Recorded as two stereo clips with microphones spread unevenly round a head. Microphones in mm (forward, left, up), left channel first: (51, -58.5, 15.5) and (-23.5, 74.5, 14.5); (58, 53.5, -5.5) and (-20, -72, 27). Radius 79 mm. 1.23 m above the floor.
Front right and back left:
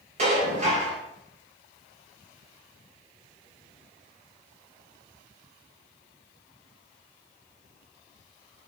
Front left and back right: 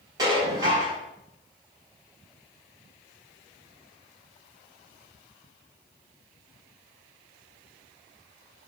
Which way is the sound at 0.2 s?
170° left.